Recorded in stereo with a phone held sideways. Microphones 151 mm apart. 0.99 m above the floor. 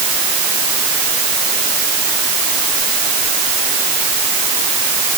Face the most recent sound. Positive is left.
No sound to turn to.